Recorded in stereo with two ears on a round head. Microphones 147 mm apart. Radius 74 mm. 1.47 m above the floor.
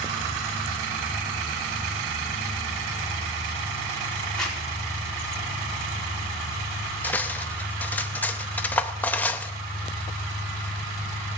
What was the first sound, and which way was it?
A zipper, 5° left (ahead or behind).